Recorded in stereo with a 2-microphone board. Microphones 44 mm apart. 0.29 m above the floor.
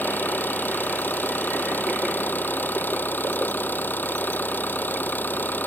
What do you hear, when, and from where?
0.0 s an engine running: 40° left (ahead or behind)